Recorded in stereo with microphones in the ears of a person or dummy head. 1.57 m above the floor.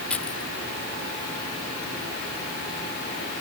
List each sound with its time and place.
0.1 s keys jangling: 5° left (ahead or behind)